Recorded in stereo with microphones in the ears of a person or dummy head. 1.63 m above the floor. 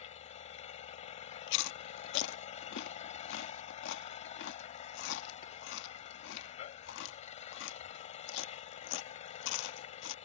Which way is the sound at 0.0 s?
40° left (ahead or behind).